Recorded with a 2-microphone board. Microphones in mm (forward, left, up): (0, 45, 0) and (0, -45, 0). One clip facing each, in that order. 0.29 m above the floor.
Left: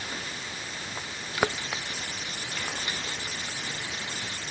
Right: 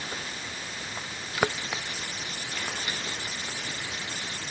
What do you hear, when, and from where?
Only background noise.